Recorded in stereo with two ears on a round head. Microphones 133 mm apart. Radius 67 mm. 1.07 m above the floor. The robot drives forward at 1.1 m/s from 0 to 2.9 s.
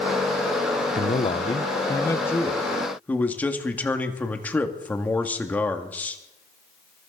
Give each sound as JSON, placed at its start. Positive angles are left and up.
{"t": 0.9, "sound": "a man speaking", "side_deg": 40, "distance_m": 0.6}